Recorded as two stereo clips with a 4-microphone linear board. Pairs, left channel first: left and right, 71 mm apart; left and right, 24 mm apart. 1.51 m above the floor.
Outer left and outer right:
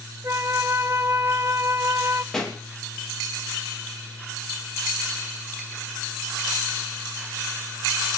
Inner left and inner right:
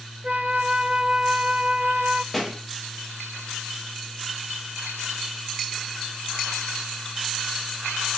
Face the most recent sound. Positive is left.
turn(degrees=5)  # may be behind; listen again after turning